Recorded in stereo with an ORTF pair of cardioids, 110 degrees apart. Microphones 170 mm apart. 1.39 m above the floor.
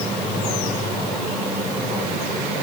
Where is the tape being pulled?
I don't hear tape being pulled.